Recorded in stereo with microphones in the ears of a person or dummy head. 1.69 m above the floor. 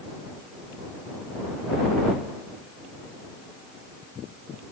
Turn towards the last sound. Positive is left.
No sound to turn to.